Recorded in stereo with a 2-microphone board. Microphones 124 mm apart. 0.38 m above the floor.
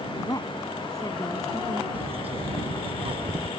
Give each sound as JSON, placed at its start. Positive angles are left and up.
{"t": 0.2, "sound": "a woman speaking", "side_deg": 30}
{"t": 1.9, "sound": "a bird", "side_deg": -50}